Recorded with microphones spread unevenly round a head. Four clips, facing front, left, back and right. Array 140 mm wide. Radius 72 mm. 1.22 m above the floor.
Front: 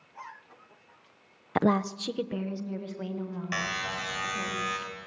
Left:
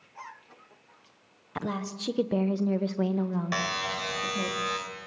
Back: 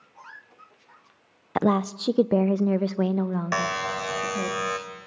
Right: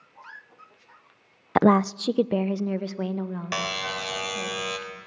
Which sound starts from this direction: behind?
A buzzer, at 3.5 s.